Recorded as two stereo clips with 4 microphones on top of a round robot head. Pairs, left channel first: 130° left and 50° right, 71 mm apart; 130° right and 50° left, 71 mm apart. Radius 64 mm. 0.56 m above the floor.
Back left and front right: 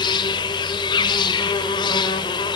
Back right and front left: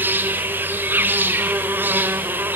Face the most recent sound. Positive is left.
turn(degrees=110)